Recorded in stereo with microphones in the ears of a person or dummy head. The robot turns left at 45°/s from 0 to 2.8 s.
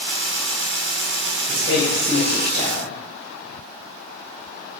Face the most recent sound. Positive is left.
turn(degrees=145)